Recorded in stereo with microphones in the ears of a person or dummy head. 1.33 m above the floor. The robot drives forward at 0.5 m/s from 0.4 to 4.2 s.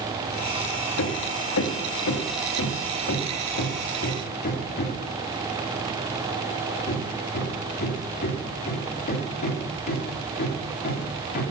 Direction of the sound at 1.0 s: 85° left.